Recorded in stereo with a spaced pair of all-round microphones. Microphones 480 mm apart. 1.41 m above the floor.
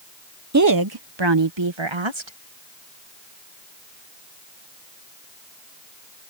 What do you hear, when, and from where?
0.5 s a woman speaking: 35° right (ahead or behind); by 2.4 s 75° right (ahead or behind)